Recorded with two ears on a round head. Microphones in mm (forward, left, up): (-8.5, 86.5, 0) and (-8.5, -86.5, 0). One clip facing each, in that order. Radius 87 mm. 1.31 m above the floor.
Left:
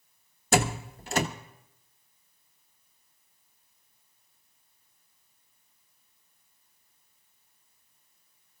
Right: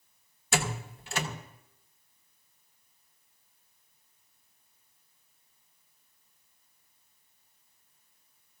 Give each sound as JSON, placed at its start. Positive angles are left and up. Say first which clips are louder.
{"t": 0.5, "sound": "a door slam", "louder": "left 6 dB", "side_deg": 35, "distance_m": 1.0}